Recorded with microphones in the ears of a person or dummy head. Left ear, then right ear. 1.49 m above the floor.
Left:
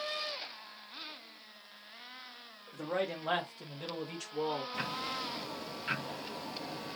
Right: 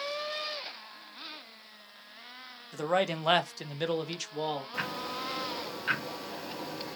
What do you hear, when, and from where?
2.7 s a man speaking: 65° right (ahead or behind), 0.7 m; by 4.6 s 25° right (ahead or behind), 0.8 m
4.7 s ticking: 25° right (ahead or behind), 0.9 m